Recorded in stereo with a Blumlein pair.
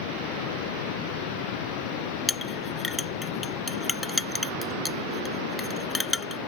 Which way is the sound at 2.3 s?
10° left.